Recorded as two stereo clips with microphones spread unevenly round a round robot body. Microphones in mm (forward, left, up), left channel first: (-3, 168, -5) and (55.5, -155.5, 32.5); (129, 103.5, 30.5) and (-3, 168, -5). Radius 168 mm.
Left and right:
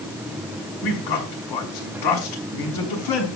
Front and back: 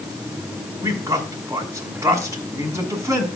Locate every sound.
0.8 s a man speaking: 85° left, 5.5 m